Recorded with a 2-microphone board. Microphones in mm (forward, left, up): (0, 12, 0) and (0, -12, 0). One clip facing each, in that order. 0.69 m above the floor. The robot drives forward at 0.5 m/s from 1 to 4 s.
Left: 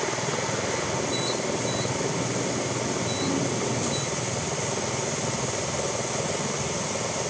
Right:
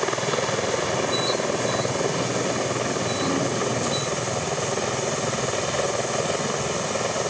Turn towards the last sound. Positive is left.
turn(degrees=-45)  # may be behind; listen again after turning